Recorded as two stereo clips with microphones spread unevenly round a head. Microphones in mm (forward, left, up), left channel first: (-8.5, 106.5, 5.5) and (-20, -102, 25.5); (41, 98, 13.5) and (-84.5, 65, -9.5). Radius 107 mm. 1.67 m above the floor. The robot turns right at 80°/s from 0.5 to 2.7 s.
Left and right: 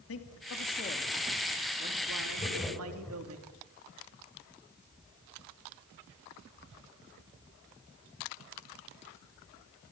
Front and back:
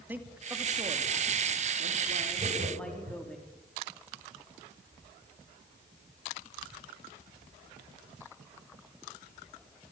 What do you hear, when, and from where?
0.1 s a man speaking: 115° left, 3 m; by 3.4 s 70° right, 3 m
2.4 s laughter: 150° left, 10 m; by 3.2 s 175° left, 10 m